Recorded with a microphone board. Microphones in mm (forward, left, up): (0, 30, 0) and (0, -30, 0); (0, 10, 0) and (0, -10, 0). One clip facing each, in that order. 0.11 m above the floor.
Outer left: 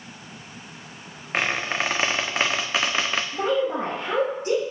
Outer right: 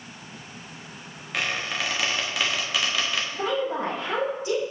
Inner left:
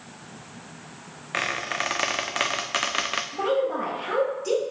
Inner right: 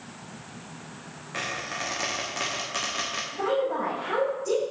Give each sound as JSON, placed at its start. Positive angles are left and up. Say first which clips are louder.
{"t": 1.3, "sound": "a squeak", "louder": "outer left 4 dB, inner left 5 dB", "side_deg": 40, "distance_m": 0.8}
{"t": 3.3, "sound": "a woman speaking", "louder": "outer left 4 dB, inner left 1 dB", "side_deg": 55, "distance_m": 3.0}